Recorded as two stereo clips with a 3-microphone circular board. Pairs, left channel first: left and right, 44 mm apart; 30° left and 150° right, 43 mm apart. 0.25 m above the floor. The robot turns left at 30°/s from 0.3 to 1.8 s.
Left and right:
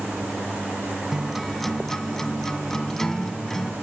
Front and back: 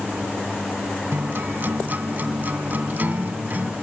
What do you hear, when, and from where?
1.1 s a guitar: 170° right, 0.7 m; by 3.7 s 170° left, 0.7 m